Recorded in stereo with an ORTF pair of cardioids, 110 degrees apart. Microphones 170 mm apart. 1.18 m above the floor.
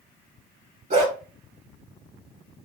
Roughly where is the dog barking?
Ahead right.